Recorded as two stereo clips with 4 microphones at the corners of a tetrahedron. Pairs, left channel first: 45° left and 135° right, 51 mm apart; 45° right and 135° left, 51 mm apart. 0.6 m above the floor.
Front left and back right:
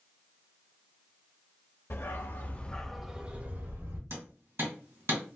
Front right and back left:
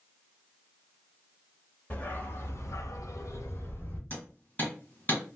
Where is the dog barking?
10° left, 0.9 m; by 4.0 s 95° right, 1.0 m.